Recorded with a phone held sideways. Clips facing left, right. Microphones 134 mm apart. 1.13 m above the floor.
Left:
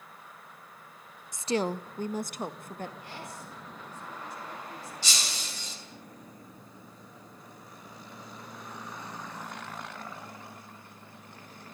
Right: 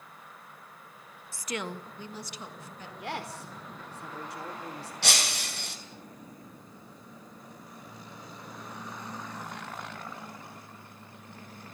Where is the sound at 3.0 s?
80° right, 4.5 m.